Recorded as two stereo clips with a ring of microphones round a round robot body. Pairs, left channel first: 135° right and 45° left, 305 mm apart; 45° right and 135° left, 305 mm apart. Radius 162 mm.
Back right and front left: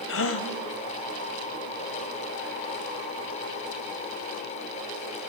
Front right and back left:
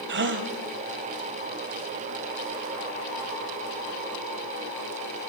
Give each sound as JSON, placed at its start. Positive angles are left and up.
{"t": 0.1, "sound": "a gasp", "azimuth_deg": -175, "distance_m": 1.5}